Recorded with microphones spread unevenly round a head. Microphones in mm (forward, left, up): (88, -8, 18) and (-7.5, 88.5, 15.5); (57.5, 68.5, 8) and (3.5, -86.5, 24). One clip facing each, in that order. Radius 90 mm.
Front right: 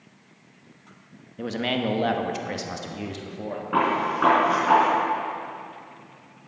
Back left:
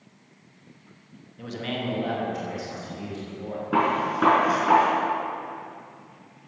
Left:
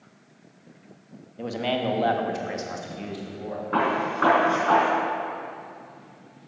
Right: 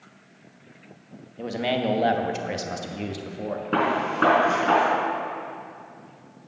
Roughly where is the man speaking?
Ahead.